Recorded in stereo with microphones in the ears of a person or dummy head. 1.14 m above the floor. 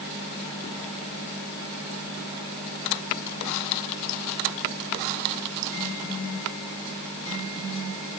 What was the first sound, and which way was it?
Only background noise.